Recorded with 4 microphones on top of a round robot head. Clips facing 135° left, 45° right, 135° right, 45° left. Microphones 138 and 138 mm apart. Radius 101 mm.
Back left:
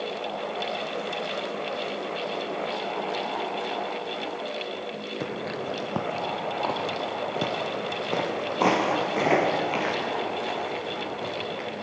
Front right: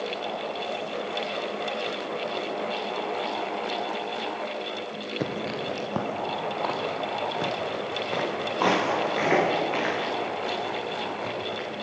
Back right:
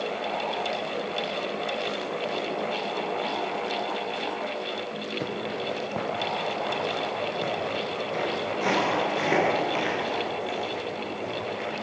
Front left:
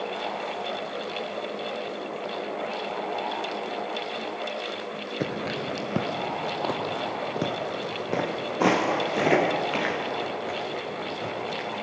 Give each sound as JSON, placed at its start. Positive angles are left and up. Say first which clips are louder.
{"t": 5.2, "sound": "footsteps", "louder": "front right 2 dB, front left 2 dB", "azimuth_deg": 15, "distance_m": 1.0}